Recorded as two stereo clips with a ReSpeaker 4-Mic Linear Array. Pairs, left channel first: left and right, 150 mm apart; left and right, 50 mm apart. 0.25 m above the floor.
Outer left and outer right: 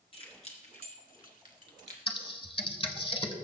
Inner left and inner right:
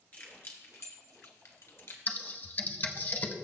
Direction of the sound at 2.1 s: 35° left (ahead or behind).